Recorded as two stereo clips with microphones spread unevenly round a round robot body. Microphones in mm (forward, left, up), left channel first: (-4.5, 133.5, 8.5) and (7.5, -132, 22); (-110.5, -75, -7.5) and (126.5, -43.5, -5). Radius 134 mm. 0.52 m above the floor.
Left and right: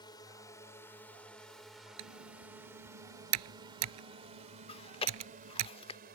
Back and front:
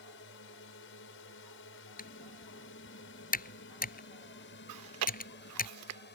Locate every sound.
0.0 s a drone: 165° left; by 6.2 s 140° right
2.0 s typing on a keyboard: 120° right
4.7 s chewing: 25° left